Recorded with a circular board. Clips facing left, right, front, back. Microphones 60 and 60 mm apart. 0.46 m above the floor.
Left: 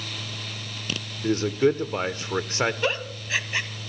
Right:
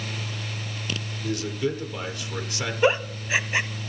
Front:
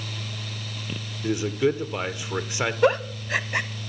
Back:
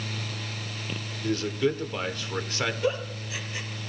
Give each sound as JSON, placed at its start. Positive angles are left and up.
{"t": 1.2, "sound": "a man speaking", "azimuth_deg": 65, "distance_m": 1.2}
{"t": 2.8, "sound": "a giggle", "azimuth_deg": -20, "distance_m": 0.8}